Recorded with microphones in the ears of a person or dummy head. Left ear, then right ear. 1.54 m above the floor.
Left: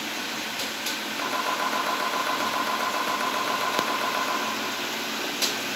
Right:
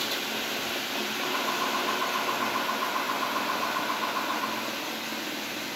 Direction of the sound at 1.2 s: 80° left.